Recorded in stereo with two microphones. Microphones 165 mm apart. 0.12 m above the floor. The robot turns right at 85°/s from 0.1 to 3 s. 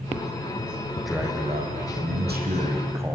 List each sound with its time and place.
1.0 s a man speaking: 170° left, 5 m; by 3.1 s 15° right, 5 m